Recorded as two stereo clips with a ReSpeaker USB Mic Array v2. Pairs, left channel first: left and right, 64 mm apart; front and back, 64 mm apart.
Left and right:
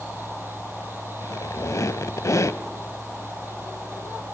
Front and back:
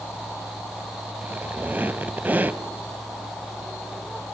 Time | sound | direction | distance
1.2 | a squeak | 120° left | 0.6 m